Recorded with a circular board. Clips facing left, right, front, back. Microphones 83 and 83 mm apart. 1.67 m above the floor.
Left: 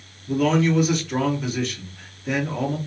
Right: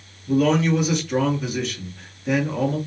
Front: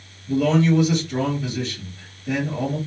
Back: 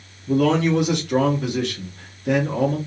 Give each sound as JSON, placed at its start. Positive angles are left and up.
{"t": 0.3, "sound": "a man speaking", "azimuth_deg": 180, "distance_m": 1.3}